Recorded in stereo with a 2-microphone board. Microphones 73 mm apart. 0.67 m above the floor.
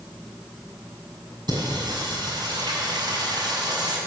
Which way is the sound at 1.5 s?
75° right (ahead or behind).